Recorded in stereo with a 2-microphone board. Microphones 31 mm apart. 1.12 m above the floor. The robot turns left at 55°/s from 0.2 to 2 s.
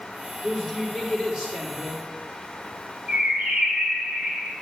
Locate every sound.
0.4 s a woman speaking: 15° left, 2.5 m; by 2.0 s 70° right, 2.5 m
3.1 s a bird: 50° right (ahead or behind), 1.3 m